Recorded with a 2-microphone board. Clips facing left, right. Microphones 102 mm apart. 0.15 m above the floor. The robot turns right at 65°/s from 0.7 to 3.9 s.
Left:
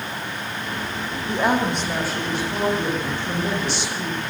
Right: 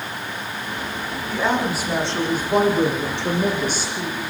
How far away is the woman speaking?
About 8.5 m.